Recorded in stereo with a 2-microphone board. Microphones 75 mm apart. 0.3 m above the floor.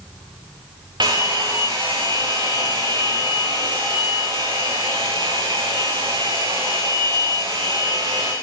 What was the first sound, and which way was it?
A hair dryer, 75° right (ahead or behind).